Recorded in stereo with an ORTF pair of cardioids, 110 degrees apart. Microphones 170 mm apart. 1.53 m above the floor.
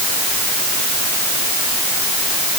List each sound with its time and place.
Only background noise.